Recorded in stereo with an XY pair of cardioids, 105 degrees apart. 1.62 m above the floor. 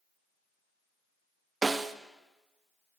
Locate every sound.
1.6 s a snare drum: 25° right, 1.1 m